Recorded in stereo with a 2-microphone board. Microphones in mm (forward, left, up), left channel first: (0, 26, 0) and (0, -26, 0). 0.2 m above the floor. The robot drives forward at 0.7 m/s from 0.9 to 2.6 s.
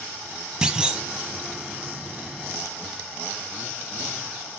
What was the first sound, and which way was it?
A clunk, 15° right (ahead or behind).